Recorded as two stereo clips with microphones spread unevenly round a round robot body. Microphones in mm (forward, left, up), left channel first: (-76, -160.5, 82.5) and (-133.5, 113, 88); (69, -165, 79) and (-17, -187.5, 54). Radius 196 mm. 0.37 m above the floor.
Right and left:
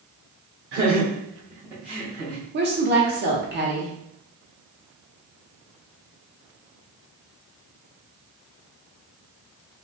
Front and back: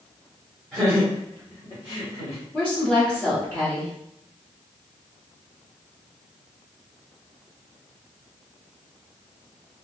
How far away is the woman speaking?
About 1.0 m.